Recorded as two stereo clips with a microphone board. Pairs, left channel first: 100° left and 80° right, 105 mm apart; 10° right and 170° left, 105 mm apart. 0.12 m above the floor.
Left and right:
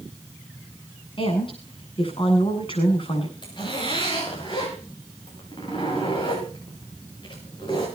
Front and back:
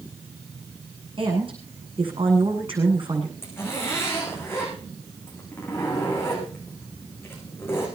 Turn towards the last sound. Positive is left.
turn(degrees=55)